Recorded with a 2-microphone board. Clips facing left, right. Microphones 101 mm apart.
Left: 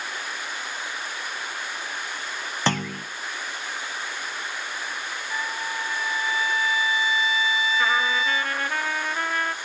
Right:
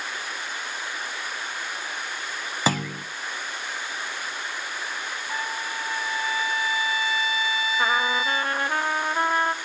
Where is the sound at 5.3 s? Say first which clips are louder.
Left 1 dB; 45° right (ahead or behind), 1.4 m.